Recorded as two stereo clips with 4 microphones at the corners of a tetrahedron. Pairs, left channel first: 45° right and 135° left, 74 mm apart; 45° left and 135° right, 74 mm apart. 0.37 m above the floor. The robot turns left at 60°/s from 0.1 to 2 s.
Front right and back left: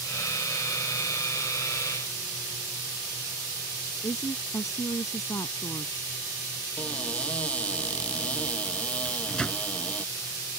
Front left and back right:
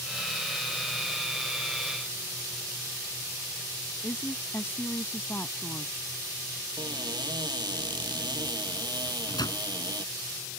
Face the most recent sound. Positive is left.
turn(degrees=30)